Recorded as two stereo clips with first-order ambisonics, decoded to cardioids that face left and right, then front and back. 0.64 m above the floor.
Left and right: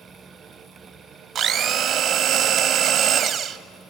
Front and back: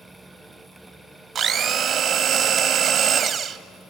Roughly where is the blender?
Behind right.